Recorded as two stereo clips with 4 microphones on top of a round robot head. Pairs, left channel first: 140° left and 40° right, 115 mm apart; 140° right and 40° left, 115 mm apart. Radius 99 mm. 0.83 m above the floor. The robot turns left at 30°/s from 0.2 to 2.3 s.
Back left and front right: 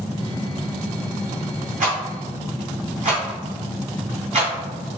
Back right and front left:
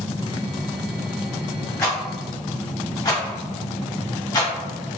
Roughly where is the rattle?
Ahead right.